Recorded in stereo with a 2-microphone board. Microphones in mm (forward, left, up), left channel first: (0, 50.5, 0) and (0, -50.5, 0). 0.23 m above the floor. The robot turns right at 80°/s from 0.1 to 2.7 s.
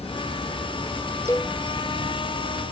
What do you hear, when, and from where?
0.0 s running water: 80° left; by 2.7 s 70° right
1.3 s a cowbell: 30° left (ahead or behind); by 1.6 s 10° left (ahead or behind)